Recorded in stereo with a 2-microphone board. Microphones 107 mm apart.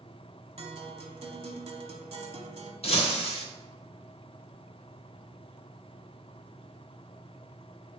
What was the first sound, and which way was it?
A guitar, 70° right (ahead or behind).